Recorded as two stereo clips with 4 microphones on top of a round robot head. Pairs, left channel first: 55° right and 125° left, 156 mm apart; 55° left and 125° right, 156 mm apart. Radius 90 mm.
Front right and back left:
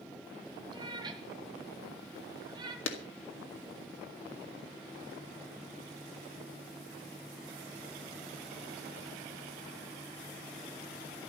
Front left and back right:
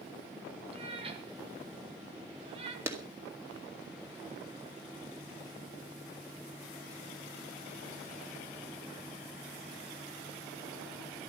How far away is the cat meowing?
About 1.6 m.